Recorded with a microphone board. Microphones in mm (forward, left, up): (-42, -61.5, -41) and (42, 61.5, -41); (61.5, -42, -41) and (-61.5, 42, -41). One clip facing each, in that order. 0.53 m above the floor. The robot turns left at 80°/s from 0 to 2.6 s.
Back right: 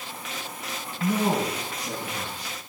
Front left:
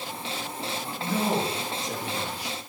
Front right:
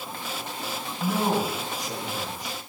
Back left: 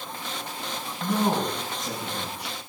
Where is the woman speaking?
110° right, 4 m; by 2.6 s 125° left, 4 m.